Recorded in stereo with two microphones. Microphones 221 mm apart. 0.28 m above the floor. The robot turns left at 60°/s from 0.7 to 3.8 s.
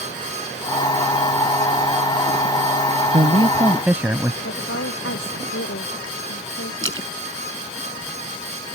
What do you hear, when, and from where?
3.1 s a man speaking: 130° right; by 4.3 s 170° right
4.4 s a woman speaking: 75° left (ahead or behind)
6.8 s a splash: 65° right (ahead or behind)